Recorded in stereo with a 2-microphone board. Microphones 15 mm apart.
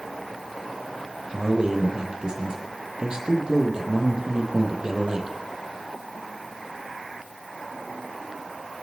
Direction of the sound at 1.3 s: 45° right (ahead or behind).